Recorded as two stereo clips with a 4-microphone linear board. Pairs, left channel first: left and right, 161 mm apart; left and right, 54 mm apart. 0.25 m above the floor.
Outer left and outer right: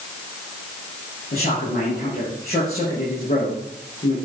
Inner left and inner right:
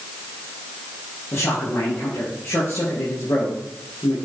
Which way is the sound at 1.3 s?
70° left (ahead or behind).